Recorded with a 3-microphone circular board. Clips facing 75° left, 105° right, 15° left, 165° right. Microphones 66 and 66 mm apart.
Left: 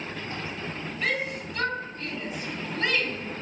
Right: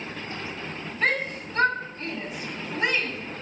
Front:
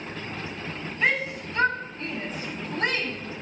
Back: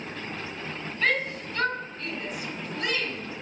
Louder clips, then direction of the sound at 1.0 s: Right 4 dB, front 1 dB; 60° right.